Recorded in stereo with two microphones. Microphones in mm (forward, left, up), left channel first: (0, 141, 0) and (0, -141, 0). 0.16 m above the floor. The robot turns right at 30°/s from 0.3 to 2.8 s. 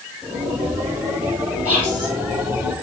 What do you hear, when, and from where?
1.6 s whispering: 50° right (ahead or behind), 6.5 m; by 2.1 s 65° right (ahead or behind), 6.5 m